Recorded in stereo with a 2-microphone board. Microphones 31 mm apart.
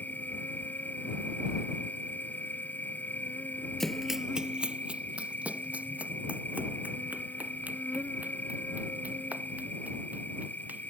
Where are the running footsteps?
15° left (ahead or behind); by 10.9 s 65° right (ahead or behind).